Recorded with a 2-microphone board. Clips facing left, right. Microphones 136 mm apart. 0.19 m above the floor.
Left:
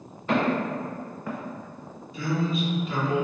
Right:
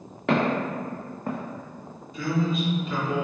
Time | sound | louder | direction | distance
0.3 | footsteps | right 1 dB | 80° right | 1.5 m
2.1 | a man speaking | right 1 dB | centre (ahead or behind) | 1.5 m